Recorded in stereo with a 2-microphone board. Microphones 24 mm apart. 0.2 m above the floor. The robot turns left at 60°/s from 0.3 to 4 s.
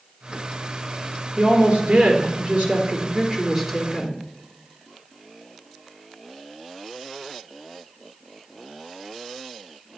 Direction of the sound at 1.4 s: 35° right.